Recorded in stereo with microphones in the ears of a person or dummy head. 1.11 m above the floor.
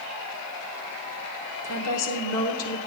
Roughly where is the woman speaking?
Left.